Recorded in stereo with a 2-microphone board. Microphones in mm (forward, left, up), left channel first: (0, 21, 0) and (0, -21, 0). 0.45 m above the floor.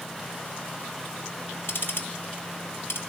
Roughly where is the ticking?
Left.